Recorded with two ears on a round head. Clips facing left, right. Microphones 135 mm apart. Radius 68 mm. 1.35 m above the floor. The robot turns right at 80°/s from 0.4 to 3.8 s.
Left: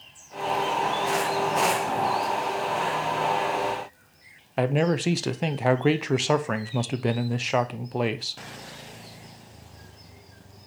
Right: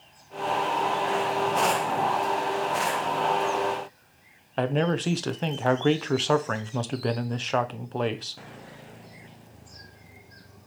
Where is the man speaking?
10° left (ahead or behind), 0.5 m.